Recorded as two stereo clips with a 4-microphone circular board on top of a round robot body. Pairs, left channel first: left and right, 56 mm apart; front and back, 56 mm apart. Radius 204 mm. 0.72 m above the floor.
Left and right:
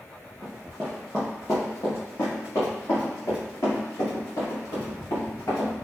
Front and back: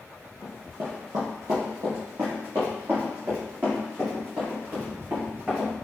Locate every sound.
0.4 s running footsteps: 120° right, 0.8 m; by 5.7 s 120° left, 3.5 m